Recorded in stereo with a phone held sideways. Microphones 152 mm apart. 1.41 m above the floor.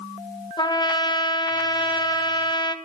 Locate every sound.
0.6 s a trumpet: 30° left (ahead or behind), 1.3 m